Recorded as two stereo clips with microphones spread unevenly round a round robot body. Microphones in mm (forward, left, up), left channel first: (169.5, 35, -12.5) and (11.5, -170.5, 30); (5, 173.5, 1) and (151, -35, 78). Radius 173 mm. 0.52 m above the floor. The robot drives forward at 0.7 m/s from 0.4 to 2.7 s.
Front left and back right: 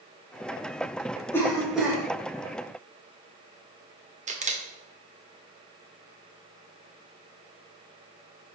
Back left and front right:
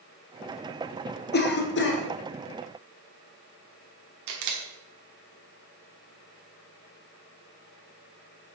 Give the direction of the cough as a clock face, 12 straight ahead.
8 o'clock.